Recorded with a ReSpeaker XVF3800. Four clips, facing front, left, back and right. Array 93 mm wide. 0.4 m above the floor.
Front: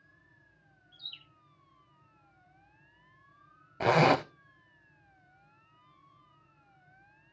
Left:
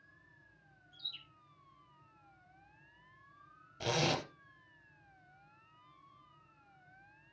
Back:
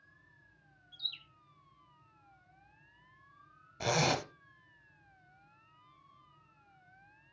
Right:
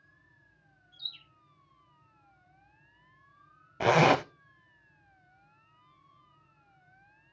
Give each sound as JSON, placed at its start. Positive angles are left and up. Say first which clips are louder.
{"t": 0.9, "sound": "a bird", "louder": "right 3 dB, back 3 dB", "azimuth_deg": 165, "distance_m": 4.5}
{"t": 3.8, "sound": "a zipper", "louder": "right 12 dB, front 8 dB", "azimuth_deg": -55, "distance_m": 0.5}